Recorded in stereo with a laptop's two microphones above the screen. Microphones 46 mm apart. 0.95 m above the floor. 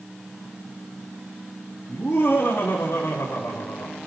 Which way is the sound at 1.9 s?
55° left (ahead or behind).